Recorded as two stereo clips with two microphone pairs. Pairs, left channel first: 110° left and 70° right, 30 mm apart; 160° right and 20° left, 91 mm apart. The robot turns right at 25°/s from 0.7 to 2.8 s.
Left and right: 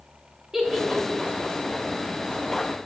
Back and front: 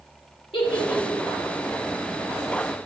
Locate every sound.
0.5 s a giggle: 145° right, 2.5 m; by 1.5 s 125° right, 2.5 m